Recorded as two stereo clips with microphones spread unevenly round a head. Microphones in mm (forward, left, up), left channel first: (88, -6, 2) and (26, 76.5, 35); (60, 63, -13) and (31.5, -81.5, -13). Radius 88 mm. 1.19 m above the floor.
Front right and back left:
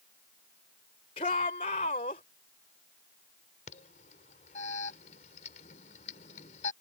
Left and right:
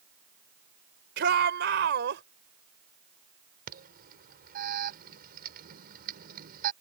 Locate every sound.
1.2 s a shout: 105° right; by 2.2 s 100° right
3.7 s an alarm: 80° right